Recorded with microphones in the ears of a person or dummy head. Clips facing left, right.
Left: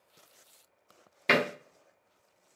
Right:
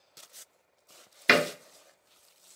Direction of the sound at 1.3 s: 10° right (ahead or behind).